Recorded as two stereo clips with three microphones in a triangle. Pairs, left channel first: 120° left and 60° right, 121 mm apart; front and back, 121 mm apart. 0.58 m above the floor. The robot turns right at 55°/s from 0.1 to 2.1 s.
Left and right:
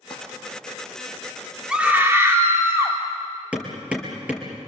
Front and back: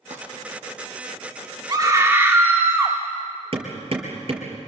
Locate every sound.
0.1 s crumpling: 160° left, 5 m; by 0.2 s 170° left, 5 m
1.7 s a scream: 140° right, 1.4 m; by 3.0 s 120° right, 1.4 m
3.5 s hammering: 140° right, 5 m